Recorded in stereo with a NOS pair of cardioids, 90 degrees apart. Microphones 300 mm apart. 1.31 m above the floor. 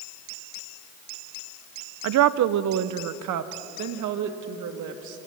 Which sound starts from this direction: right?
A woman speaking, at 2.0 s.